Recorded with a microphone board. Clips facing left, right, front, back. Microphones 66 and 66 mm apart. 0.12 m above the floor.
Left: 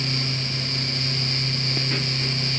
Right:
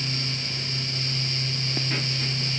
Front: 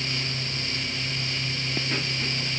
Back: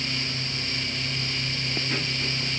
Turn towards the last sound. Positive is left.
No sound to turn to.